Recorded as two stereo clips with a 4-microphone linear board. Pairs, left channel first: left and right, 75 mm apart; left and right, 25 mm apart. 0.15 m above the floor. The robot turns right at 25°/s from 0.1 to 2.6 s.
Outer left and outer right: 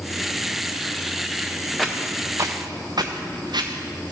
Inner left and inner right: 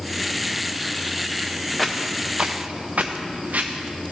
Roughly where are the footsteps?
Centre.